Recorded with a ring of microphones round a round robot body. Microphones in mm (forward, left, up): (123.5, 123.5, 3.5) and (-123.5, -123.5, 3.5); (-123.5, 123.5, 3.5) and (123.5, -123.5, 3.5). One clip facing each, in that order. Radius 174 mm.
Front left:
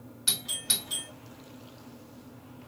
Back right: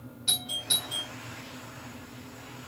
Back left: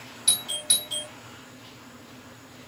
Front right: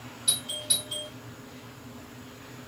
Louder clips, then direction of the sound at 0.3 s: Even, even; 75° left.